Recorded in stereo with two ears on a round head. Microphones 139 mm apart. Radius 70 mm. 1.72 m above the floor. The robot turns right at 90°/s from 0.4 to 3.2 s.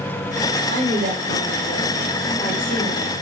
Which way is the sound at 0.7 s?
145° right.